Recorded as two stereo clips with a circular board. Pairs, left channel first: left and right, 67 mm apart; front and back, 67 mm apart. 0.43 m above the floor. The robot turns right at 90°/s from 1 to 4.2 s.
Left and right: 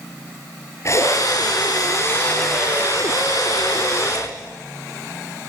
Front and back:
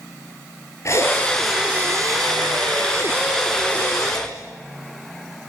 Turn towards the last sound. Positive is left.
turn(degrees=-25)